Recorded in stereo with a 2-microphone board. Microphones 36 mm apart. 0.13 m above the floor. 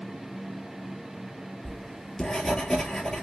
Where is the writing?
15° left (ahead or behind), 0.6 m.